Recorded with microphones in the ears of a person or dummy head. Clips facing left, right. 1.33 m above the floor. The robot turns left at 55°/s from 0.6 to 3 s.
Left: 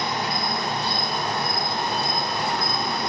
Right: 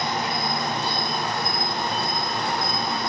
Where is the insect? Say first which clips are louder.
Even; 160° right, 1.4 m; by 3.1 s 70° left, 1.4 m.